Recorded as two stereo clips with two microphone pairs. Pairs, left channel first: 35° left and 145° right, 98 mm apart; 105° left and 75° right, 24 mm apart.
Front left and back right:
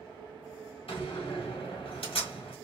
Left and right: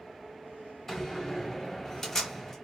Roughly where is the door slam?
Ahead left.